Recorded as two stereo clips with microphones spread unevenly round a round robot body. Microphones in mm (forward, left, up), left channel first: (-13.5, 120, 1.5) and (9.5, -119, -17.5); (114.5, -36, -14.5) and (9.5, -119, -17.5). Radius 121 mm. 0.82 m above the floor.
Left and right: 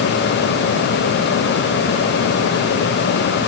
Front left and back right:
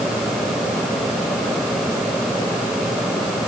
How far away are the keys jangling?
I don't hear keys jangling.